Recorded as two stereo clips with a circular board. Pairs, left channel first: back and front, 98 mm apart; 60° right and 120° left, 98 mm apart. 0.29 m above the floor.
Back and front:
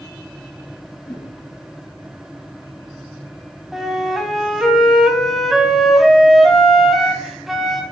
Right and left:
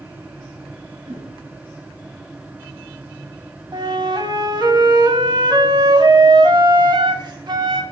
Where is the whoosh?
95° left, 3 m.